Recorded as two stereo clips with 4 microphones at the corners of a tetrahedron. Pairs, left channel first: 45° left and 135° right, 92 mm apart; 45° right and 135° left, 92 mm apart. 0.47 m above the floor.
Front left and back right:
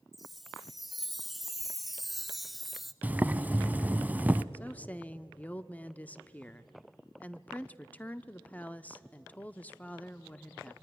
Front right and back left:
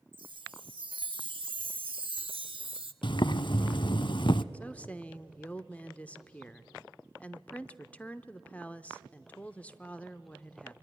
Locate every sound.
0.1 s a chime: 135° left, 0.8 m
3.0 s boiling: 65° right, 0.6 m
4.5 s a woman speaking: straight ahead, 0.7 m